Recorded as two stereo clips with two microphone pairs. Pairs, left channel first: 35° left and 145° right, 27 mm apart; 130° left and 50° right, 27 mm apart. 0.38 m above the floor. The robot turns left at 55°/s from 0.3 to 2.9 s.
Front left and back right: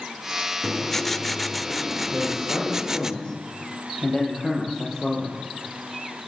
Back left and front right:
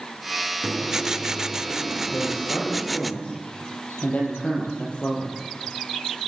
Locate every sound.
0.6 s writing: 10° right, 0.7 m; by 3.1 s 135° right, 0.7 m
2.1 s a man speaking: 145° left, 9.5 m; by 5.4 s 100° left, 9.5 m